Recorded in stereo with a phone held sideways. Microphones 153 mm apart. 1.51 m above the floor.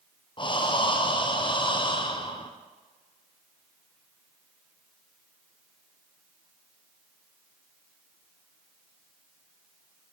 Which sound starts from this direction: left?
Breathing, at 0.4 s.